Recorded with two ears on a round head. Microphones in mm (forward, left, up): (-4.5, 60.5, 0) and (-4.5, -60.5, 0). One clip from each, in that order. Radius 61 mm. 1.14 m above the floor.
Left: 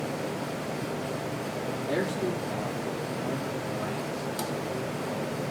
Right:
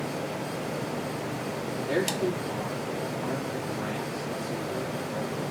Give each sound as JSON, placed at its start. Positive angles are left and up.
{"t": 1.9, "sound": "a man speaking", "side_deg": -30, "distance_m": 3.0}